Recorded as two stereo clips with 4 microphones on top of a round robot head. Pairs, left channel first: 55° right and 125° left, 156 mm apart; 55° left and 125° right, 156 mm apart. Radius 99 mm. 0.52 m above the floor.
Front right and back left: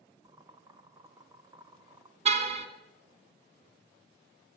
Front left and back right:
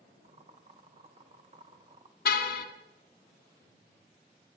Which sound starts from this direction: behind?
Boiling, at 0.2 s.